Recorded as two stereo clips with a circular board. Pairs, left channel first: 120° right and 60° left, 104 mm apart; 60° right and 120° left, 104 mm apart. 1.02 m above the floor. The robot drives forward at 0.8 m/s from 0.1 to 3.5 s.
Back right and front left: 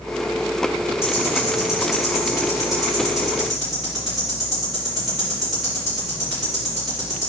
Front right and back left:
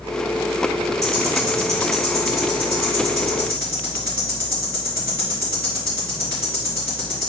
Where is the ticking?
175° left, 1.7 m; by 7.3 s straight behind, 3.5 m.